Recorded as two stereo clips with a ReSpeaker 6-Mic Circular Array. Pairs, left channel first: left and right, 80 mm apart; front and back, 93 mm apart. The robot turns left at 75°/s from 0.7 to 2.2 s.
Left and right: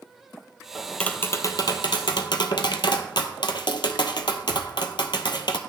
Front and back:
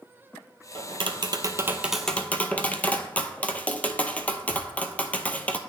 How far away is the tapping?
About 0.6 m.